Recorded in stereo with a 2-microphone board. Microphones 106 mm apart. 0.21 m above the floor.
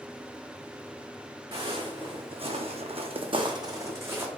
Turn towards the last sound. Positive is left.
turn(degrees=-20)  # may be behind; listen again after turning